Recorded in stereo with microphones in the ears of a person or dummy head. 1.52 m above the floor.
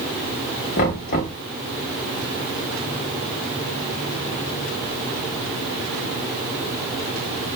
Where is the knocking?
35° left (ahead or behind), 0.8 m.